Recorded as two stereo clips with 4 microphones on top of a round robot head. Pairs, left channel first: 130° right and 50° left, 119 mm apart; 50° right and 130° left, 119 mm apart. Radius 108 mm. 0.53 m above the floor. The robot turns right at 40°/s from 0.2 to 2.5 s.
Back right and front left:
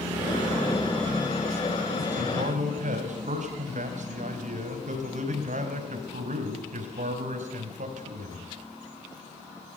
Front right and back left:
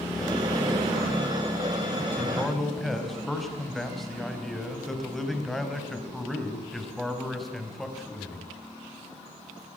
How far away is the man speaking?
About 4 m.